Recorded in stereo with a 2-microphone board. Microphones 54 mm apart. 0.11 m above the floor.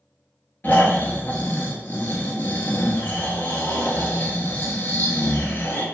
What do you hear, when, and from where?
0.6 s snoring: 35° left (ahead or behind), 0.5 m